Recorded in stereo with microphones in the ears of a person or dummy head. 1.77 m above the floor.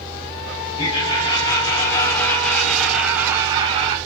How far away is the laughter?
About 1.7 m.